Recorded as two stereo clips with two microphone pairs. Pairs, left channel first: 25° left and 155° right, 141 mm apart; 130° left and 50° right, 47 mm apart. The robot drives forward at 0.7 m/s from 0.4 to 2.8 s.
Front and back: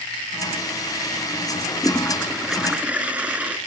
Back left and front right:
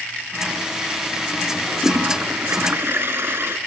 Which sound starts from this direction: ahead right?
A toilet flushing, at 1.7 s.